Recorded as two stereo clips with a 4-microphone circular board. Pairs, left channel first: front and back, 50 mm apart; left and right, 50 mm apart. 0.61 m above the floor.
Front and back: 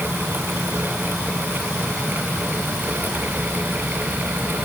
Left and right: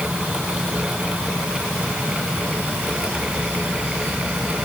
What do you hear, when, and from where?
Only background noise.